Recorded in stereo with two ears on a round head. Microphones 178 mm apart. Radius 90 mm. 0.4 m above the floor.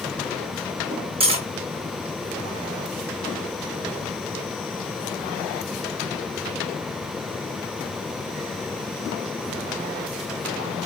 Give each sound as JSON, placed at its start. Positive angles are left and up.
{"t": 1.2, "sound": "cutlery clinking", "side_deg": -30, "distance_m": 0.9}